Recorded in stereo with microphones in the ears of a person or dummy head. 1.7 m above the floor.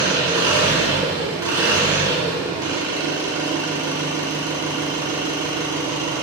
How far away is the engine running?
About 0.8 m.